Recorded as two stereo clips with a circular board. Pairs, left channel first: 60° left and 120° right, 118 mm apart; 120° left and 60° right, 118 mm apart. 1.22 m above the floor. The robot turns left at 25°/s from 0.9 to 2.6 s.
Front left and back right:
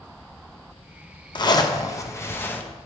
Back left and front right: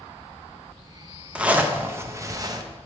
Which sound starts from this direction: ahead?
A zipper, at 1.4 s.